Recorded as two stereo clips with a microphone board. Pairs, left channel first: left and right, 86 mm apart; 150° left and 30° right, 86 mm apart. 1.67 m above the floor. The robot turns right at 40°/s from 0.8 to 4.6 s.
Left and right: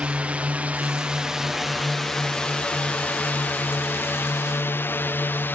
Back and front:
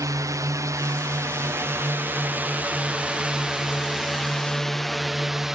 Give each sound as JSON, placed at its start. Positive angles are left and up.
{"t": 0.0, "sound": "a drone", "azimuth_deg": -20}